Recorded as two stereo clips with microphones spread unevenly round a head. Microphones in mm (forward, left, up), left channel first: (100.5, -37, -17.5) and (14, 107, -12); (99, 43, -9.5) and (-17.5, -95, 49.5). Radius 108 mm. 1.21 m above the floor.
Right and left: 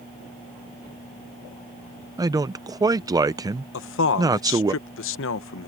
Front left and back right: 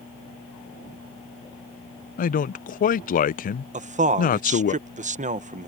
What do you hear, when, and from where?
2.2 s a man speaking: 50° left
3.7 s a man speaking: 75° right